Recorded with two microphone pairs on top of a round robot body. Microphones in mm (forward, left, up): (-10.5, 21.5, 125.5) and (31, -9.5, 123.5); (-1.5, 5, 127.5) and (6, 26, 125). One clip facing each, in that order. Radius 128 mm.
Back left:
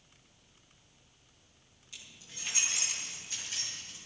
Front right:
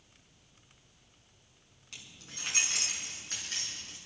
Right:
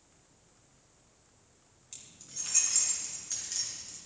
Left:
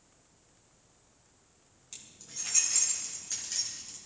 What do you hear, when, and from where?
1.9 s keys jangling: 5° right, 5 m